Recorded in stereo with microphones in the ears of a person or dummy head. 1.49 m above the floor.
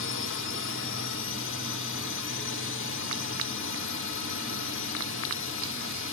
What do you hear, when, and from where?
0.0 s a drone: 60° left (ahead or behind)